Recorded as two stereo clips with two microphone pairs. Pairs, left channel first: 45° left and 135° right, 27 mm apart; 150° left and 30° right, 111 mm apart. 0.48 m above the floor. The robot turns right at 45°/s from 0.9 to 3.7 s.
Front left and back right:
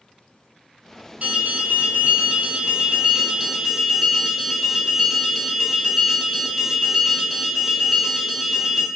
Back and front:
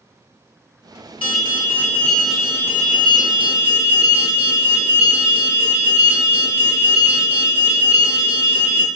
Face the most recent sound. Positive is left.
turn(degrees=-55)